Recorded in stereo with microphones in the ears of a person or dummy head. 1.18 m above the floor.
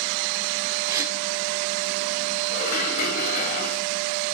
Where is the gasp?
20° right (ahead or behind), 5.5 m.